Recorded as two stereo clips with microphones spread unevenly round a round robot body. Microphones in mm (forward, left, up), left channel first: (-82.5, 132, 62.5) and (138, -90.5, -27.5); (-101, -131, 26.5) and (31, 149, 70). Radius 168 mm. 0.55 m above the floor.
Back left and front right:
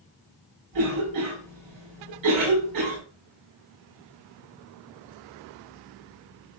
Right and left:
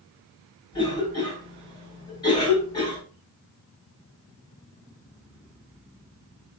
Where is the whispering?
I don't hear whispering.